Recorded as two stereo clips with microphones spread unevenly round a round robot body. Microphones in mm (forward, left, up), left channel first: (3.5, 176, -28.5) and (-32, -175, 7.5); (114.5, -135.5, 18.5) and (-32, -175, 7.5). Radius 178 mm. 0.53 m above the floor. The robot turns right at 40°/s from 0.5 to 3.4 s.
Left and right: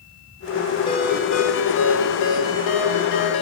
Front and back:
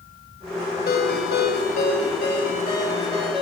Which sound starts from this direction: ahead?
A ringtone, at 0.9 s.